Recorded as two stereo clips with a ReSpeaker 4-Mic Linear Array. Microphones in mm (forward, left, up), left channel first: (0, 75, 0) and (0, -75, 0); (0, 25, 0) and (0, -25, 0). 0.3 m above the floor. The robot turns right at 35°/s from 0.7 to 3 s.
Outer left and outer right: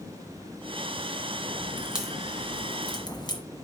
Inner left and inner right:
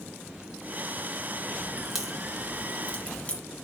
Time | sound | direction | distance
1.8 | a crack | 10° right (ahead or behind) | 1.7 m